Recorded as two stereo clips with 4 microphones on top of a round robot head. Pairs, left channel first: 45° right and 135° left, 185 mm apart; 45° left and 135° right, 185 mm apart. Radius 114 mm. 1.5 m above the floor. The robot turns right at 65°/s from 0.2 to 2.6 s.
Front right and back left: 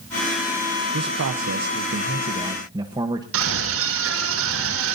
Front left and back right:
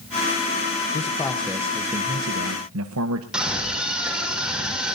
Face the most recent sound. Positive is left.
turn(degrees=140)